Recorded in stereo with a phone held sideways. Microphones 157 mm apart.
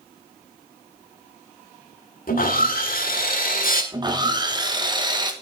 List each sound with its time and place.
2.3 s sawing: 65° left (ahead or behind), 1.9 m
3.9 s sawing: 30° right (ahead or behind), 1.2 m